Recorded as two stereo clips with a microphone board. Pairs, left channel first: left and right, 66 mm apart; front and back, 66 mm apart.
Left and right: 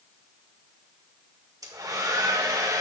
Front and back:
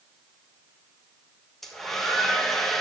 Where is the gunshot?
I don't hear a gunshot.